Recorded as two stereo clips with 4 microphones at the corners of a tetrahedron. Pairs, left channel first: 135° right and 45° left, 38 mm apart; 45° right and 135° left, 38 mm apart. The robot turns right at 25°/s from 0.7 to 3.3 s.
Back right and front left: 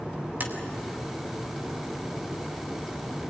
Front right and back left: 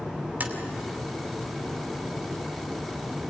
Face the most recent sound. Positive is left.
turn(degrees=155)